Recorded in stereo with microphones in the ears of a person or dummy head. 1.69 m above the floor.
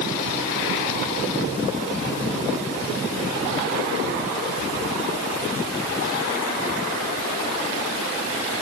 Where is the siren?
I don't hear a siren.